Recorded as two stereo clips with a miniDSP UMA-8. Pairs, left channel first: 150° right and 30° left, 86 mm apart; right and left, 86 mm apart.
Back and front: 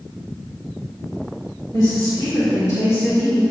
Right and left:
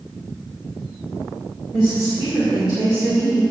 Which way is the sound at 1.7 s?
120° right.